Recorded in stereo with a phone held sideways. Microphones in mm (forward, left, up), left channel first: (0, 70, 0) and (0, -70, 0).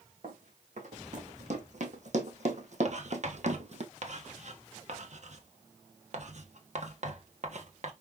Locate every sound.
0.2 s running footsteps: 60° right (ahead or behind), 3 m; by 3.9 s 55° right (ahead or behind), 1.5 m
2.9 s writing: 55° right (ahead or behind), 1.3 m